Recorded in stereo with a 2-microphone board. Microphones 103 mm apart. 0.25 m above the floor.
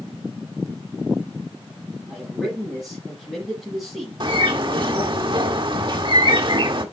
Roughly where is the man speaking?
Centre.